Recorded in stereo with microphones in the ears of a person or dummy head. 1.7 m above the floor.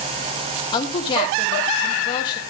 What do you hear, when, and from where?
0.7 s a woman speaking: 25° left (ahead or behind), 3 m